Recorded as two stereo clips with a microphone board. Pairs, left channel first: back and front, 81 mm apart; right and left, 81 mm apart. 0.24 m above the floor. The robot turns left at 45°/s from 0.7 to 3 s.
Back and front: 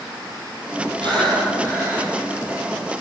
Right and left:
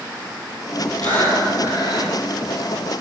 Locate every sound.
1.0 s breathing: 20° right, 1.9 m; by 2.1 s 70° right, 1.9 m